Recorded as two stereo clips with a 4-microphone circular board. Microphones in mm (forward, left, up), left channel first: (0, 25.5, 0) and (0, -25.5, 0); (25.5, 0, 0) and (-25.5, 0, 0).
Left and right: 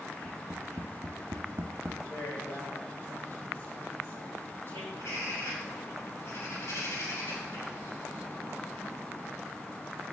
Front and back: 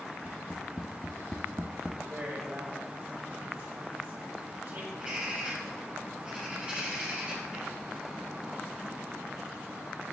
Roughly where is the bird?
Behind left.